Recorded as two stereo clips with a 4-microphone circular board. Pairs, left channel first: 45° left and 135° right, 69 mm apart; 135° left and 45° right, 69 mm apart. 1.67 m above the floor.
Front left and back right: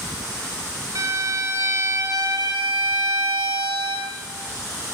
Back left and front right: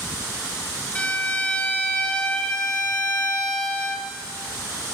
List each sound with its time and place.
0.9 s a violin: 155° right, 2.5 m